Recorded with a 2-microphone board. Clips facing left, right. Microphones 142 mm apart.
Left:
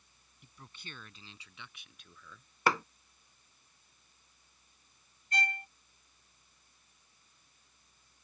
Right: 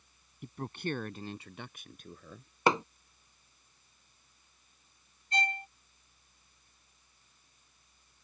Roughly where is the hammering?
Right.